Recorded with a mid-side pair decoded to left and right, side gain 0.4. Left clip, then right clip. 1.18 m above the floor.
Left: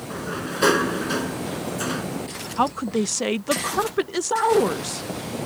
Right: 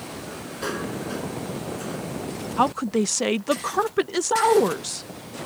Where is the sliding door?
70° left.